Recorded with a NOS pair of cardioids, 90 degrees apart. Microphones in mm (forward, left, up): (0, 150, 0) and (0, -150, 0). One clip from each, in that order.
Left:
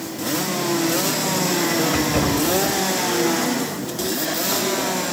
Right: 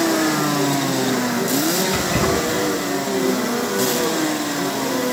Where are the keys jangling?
15° right, 6 m.